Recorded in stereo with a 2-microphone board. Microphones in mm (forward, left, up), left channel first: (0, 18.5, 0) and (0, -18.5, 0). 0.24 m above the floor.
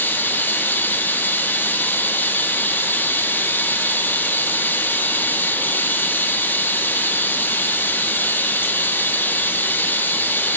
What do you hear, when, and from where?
0.0 s running water: 60° left (ahead or behind), 2.5 m